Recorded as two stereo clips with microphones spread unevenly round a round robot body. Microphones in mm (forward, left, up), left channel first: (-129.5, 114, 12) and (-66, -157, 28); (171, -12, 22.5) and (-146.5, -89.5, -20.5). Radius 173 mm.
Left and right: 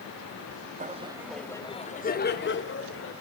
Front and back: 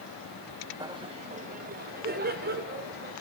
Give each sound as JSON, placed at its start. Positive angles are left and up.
{"t": 0.8, "sound": "laughter", "azimuth_deg": -115, "distance_m": 1.1}